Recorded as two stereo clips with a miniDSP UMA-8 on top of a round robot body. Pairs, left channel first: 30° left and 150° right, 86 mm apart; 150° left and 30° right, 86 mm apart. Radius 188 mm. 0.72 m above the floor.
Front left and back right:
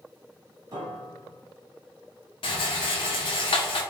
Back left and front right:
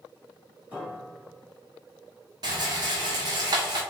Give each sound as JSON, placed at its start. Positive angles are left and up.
{"t": 0.7, "sound": "a piano", "azimuth_deg": -100, "distance_m": 1.7}
{"t": 2.4, "sound": "a rattle", "azimuth_deg": 10, "distance_m": 0.6}